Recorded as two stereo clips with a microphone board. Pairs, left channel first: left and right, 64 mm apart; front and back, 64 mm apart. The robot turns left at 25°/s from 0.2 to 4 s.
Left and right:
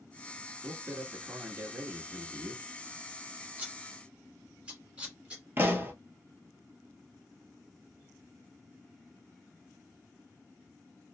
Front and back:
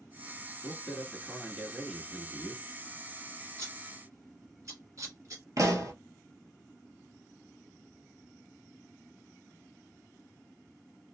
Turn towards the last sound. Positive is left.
turn(degrees=-145)